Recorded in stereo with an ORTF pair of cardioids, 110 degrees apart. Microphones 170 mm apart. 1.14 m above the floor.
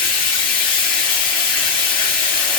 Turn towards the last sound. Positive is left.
turn(degrees=60)